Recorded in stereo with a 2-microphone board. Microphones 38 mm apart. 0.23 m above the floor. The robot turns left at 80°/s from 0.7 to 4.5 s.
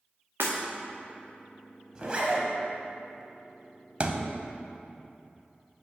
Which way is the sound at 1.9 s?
40° right.